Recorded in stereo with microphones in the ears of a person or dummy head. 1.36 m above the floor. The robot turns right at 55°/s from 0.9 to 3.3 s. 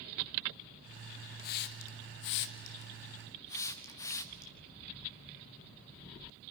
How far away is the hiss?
About 0.9 m.